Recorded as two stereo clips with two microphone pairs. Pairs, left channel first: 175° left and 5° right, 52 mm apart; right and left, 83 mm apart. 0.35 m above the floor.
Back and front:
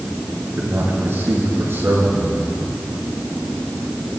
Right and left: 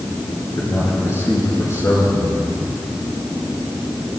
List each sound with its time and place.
0.6 s a man speaking: 40° right, 7 m; by 2.5 s 35° right, 6 m